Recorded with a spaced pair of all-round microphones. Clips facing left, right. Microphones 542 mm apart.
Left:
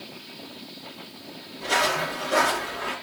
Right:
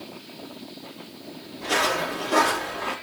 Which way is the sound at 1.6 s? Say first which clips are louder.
Right 1 dB; 15° right (ahead or behind).